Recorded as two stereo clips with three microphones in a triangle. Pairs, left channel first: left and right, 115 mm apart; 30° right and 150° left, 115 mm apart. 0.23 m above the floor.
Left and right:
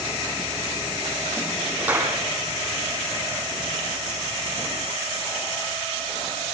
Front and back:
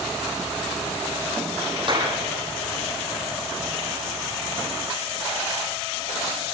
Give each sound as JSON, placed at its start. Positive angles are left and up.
{"t": 1.8, "sound": "a clap", "azimuth_deg": -165, "distance_m": 7.5}